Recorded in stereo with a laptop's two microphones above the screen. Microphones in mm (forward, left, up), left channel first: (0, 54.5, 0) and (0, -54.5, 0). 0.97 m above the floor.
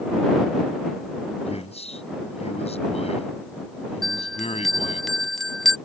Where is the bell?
Centre (ahead or behind).